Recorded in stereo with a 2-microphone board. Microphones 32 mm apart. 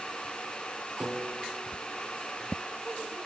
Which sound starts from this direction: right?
A piano, at 1.0 s.